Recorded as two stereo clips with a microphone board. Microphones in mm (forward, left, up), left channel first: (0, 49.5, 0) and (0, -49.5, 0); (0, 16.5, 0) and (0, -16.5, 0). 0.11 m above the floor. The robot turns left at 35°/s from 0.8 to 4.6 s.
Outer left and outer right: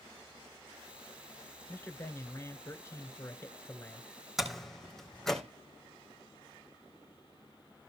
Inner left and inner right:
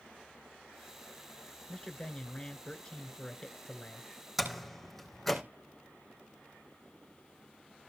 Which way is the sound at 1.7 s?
25° left (ahead or behind).